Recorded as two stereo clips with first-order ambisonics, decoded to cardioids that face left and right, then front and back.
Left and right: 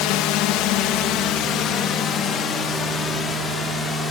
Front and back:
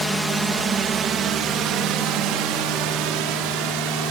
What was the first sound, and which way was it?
A drone, 90° left.